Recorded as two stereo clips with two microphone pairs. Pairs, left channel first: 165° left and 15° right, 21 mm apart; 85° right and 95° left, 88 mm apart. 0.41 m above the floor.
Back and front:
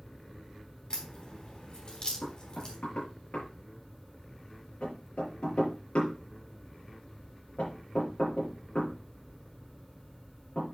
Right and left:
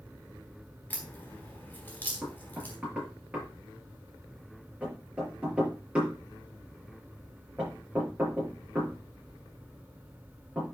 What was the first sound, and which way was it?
A crack, 160° right.